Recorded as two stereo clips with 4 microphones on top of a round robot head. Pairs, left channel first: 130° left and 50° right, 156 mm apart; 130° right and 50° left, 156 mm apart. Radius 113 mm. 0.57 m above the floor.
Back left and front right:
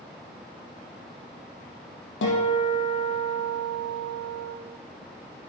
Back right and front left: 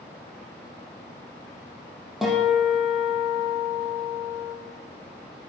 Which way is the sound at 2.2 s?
140° left.